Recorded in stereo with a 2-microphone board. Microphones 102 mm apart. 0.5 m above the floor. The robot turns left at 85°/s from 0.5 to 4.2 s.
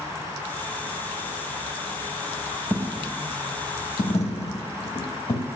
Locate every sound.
2.7 s a dropped coin: 35° right (ahead or behind), 0.7 m; by 5.5 s 80° left, 0.7 m